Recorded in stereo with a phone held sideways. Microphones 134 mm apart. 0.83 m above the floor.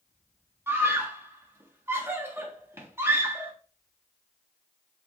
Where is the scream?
20° right (ahead or behind), 1.5 m.